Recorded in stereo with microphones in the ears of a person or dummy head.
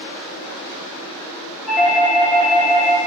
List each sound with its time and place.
1.7 s a doorbell: 5° right (ahead or behind), 0.6 m